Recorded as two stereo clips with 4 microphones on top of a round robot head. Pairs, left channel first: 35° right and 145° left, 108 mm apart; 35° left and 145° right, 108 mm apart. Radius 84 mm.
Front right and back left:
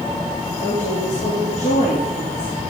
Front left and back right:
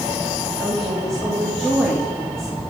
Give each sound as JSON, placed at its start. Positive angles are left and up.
{"t": 0.6, "sound": "a woman speaking", "azimuth_deg": -50, "distance_m": 2.5}